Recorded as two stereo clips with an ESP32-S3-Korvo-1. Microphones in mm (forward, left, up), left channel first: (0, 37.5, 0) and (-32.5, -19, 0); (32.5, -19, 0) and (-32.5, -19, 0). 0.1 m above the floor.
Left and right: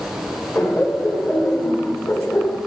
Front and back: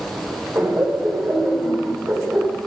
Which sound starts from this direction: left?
Laughter, at 0.6 s.